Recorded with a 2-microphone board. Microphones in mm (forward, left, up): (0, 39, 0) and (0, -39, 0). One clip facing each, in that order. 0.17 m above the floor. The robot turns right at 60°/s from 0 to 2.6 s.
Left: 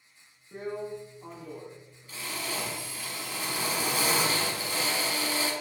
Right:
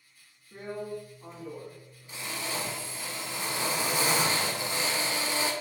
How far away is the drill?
About 0.5 m.